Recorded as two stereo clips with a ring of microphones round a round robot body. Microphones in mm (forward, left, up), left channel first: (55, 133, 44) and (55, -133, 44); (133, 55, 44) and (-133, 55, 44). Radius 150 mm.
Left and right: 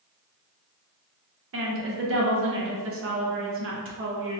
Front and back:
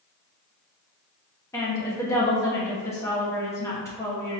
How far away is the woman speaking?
About 1.0 m.